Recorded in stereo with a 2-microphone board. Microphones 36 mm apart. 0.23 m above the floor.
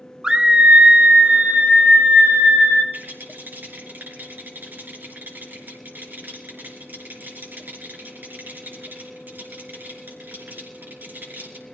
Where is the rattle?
65° right (ahead or behind), 4 m.